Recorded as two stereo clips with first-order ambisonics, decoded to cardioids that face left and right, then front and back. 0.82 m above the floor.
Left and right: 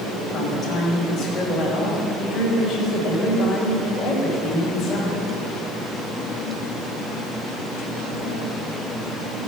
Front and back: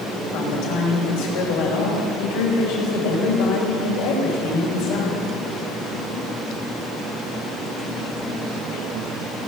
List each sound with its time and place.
0.3 s a woman speaking: 15° left, 4.5 m